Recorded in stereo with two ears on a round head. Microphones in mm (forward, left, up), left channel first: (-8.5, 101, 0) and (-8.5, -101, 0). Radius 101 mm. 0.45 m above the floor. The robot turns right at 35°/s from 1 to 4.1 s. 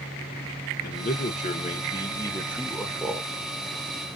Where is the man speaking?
115° left, 1.0 m; by 3.3 s 165° right, 1.0 m.